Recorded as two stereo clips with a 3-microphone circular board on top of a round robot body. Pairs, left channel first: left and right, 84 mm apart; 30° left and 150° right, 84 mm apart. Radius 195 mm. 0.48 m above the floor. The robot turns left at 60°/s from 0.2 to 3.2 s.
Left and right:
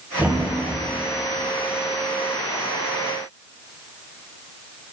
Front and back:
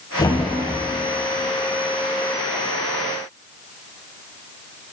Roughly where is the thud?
Ahead.